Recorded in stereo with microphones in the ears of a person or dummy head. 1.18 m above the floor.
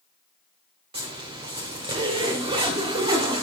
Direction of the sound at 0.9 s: 25° right (ahead or behind).